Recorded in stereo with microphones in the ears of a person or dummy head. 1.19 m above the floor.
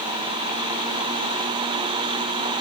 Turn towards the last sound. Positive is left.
No sound to turn to.